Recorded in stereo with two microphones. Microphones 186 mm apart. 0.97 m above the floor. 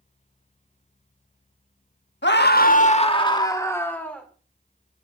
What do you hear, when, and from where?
2.2 s a scream: 75° left (ahead or behind), 1.2 m; by 4.3 s 5° left (ahead or behind), 2.5 m